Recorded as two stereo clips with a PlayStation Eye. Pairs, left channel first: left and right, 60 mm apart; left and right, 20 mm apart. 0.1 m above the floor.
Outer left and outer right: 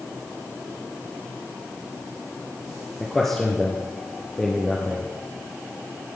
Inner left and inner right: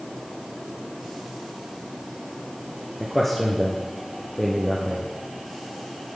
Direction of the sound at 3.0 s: 10° left (ahead or behind).